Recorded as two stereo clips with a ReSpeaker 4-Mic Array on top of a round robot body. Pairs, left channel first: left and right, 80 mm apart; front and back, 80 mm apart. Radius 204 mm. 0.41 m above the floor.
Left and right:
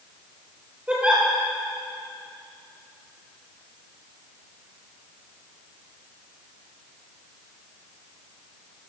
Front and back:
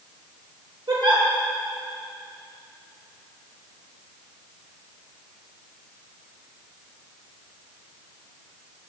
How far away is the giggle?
About 3 m.